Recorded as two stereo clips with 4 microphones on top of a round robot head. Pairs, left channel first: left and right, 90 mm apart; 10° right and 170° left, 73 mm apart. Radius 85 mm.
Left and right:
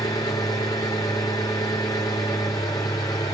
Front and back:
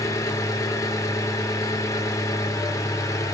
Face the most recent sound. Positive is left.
turn(degrees=30)